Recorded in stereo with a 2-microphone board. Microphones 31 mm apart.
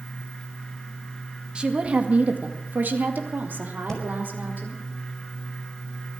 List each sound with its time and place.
1.6 s a woman speaking: 30° right (ahead or behind), 2 m; by 4.8 s 80° right, 4.5 m
3.9 s breathing: 20° left (ahead or behind), 5 m